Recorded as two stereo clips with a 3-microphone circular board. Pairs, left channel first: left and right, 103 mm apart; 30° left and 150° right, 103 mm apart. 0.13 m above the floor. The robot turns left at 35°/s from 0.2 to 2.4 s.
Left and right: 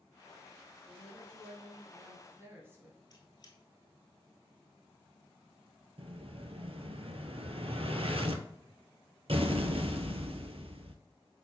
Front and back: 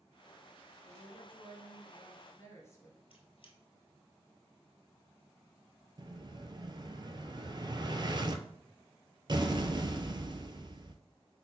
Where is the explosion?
105° right, 0.6 m.